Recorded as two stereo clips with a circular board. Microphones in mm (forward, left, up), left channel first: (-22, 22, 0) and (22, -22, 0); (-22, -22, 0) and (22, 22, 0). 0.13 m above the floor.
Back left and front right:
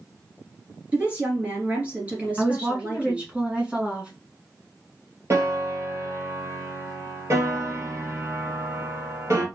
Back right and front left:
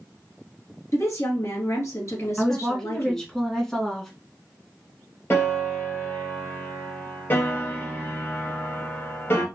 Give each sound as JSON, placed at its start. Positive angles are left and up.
{"t": 0.9, "sound": "a woman speaking", "azimuth_deg": -110, "distance_m": 2.0}
{"t": 2.4, "sound": "a woman speaking", "azimuth_deg": -65, "distance_m": 1.3}
{"t": 5.3, "sound": "a piano", "azimuth_deg": -85, "distance_m": 2.0}